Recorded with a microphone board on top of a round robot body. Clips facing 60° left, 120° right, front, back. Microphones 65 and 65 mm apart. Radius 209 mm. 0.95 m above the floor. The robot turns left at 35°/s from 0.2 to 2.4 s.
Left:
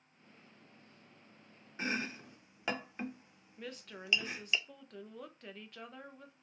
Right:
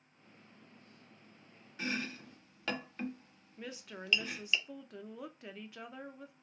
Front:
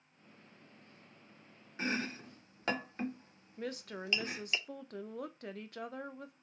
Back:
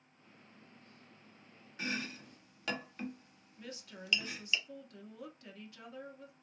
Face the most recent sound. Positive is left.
turn(degrees=-35)